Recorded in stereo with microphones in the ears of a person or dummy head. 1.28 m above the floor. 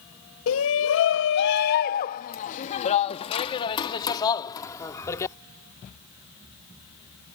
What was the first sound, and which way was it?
A shout, 85° left.